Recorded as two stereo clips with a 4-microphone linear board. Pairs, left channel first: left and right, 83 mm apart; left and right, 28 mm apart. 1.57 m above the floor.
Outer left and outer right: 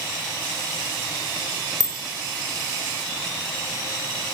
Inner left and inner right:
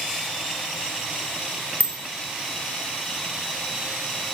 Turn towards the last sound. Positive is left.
turn(degrees=60)  # may be behind; listen again after turning